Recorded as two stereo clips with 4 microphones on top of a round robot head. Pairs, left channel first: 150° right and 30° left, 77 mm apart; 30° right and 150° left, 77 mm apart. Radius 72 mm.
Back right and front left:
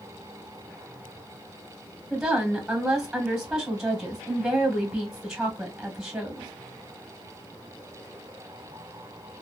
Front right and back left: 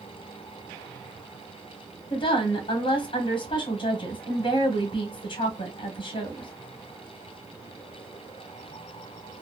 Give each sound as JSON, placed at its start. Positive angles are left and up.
{"t": 2.1, "sound": "a woman speaking", "azimuth_deg": -55, "distance_m": 1.2}